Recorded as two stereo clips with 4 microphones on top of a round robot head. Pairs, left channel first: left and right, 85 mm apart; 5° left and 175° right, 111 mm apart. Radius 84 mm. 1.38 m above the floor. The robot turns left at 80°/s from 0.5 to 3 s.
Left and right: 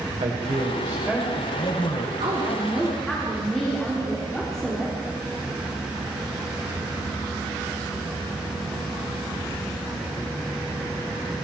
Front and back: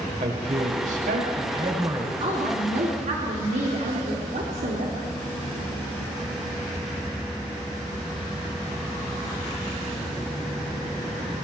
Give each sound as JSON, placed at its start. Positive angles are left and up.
{"t": 0.2, "sound": "a man speaking", "azimuth_deg": -130, "distance_m": 6.0}
{"t": 2.2, "sound": "a woman speaking", "azimuth_deg": -120, "distance_m": 3.5}